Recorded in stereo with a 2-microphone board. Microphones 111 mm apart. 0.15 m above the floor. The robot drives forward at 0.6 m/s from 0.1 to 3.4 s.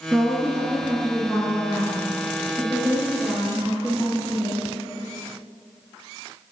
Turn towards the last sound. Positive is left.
turn(degrees=-15)  # may be behind; listen again after turning